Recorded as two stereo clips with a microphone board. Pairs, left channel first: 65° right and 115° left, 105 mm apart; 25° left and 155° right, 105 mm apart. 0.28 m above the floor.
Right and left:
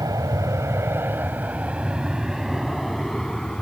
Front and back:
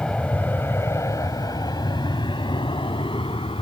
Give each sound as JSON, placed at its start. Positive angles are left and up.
{"t": 0.0, "sound": "an aircraft", "azimuth_deg": 100}